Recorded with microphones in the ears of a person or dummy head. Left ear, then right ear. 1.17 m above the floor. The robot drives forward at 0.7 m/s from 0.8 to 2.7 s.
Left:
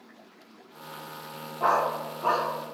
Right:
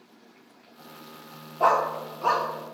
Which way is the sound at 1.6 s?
15° right (ahead or behind).